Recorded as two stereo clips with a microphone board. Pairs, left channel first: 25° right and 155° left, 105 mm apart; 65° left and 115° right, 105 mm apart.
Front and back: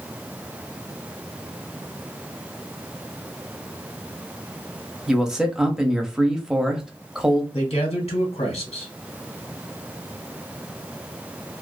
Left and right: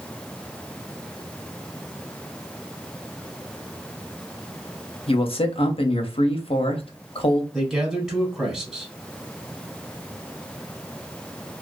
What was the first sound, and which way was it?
A man speaking, 75° left.